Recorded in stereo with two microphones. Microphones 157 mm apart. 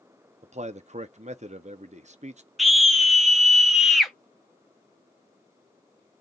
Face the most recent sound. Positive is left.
turn(degrees=0)  # may be behind; listen again after turning